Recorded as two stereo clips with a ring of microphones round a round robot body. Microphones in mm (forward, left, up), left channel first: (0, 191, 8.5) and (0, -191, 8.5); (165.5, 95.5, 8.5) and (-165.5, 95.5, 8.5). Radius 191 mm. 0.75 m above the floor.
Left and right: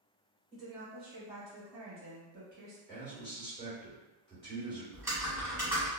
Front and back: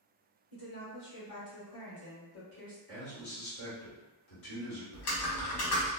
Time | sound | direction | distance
0.5 | a woman speaking | straight ahead | 1.9 m
2.9 | a man speaking | 10° left | 1.8 m
4.9 | typing on a keyboard | 5° right | 1.0 m